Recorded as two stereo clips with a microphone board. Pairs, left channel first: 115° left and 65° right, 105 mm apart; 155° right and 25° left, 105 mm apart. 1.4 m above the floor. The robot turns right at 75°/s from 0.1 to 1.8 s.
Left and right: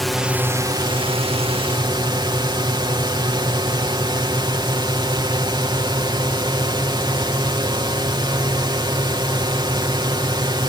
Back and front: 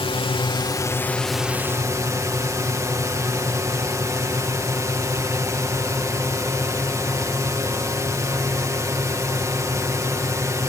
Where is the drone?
160° right; by 10.7 s 30° right.